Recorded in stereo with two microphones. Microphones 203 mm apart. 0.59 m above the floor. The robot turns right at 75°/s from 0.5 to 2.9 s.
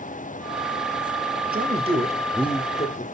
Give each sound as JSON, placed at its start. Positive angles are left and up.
{"t": 1.5, "sound": "a man speaking", "azimuth_deg": -65, "distance_m": 1.3}